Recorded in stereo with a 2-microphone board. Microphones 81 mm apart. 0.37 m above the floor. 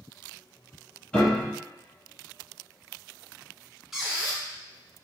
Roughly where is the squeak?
Centre.